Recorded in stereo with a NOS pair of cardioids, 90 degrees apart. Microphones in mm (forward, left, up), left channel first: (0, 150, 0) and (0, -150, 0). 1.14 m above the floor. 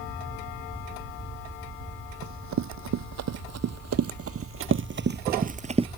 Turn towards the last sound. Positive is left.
turn(degrees=-20)